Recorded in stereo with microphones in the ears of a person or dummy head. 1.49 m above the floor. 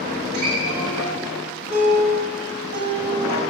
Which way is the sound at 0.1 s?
60° right (ahead or behind).